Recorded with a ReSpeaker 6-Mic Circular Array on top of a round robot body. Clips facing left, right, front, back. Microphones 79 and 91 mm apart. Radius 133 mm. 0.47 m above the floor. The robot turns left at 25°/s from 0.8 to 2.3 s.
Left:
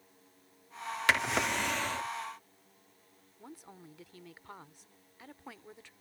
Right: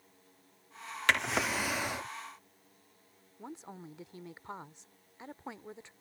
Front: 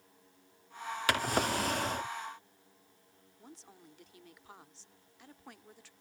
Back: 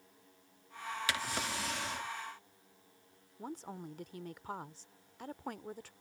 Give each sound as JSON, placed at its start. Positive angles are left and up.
{"t": 1.1, "sound": "a drawer", "azimuth_deg": 5}
{"t": 3.4, "sound": "a woman speaking", "azimuth_deg": -155}